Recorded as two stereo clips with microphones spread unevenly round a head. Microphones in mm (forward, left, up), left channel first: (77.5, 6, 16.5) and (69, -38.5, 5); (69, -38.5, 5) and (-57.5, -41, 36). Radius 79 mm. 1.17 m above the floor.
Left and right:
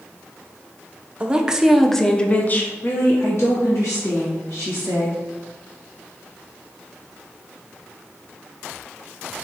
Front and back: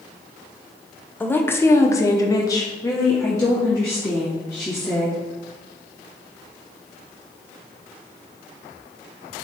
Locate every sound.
1.2 s a woman speaking: 60° right, 0.8 m; by 5.2 s 70° left, 1.8 m